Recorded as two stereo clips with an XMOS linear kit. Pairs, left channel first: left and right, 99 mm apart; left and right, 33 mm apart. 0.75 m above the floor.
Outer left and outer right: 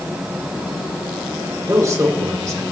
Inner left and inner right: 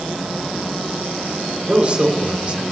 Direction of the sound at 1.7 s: 35° right (ahead or behind).